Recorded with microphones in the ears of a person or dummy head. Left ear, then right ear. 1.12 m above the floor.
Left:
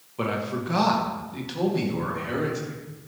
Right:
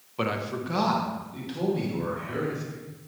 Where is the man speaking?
25° right (ahead or behind), 1.1 m; by 2.8 s 30° left (ahead or behind), 3.5 m.